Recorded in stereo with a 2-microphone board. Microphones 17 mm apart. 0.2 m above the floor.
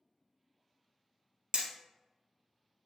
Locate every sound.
1.5 s hammering: 45° right (ahead or behind), 0.8 m